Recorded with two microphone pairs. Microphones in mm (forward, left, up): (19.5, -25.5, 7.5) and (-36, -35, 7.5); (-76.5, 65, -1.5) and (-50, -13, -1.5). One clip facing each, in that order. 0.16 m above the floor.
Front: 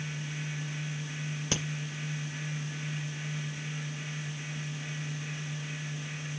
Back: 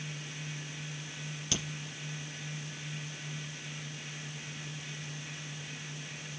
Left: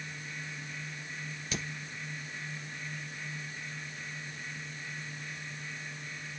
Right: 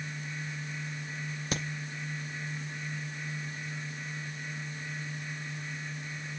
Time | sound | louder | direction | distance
1.5 | a crack | front 3 dB, right 4 dB | 45° right | 2.5 m